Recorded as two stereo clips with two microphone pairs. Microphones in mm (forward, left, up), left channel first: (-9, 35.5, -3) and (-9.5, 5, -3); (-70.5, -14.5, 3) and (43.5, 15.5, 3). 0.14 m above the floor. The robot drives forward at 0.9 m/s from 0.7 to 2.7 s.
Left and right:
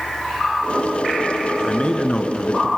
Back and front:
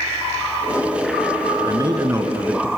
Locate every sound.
1.6 s a man speaking: 50° left, 2 m; by 2.7 s 90° left, 1.9 m